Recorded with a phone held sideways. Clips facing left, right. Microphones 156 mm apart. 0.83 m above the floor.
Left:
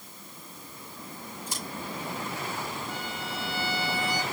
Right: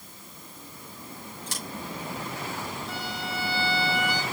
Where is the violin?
70° right (ahead or behind), 4 m.